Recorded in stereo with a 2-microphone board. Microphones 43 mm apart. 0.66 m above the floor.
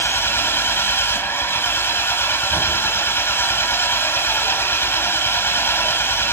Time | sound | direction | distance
0.0 | an engine running | 90° left | 1.8 m